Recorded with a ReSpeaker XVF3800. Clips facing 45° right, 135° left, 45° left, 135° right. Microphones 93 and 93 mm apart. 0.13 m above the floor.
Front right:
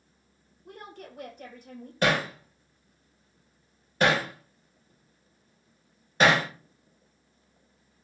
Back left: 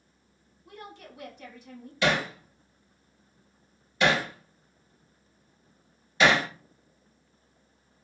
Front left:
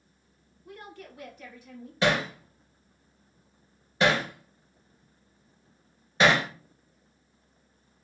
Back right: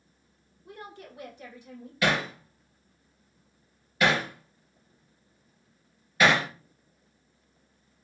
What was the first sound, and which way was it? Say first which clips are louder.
A woman speaking: front right 1 dB, back right 1 dB; 70° right.